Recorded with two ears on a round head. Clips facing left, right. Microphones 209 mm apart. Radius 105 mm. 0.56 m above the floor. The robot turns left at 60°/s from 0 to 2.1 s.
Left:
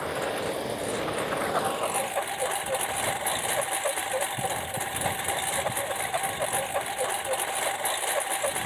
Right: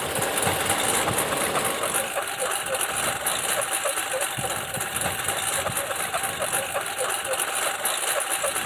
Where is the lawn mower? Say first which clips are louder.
Right 2 dB; 45° right; by 8.7 s 170° right.